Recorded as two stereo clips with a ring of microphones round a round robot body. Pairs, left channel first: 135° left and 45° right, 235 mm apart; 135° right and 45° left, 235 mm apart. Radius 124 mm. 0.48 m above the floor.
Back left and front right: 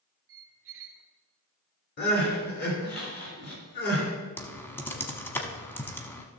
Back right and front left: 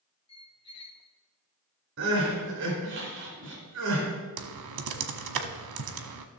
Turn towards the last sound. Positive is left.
turn(degrees=55)